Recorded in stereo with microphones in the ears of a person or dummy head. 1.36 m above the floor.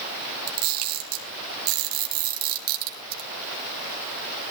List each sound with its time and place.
0.5 s a camera shutter: 75° right (ahead or behind), 4.5 m